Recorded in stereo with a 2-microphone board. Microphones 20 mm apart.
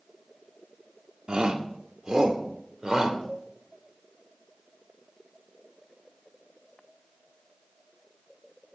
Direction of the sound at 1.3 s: 50° right (ahead or behind).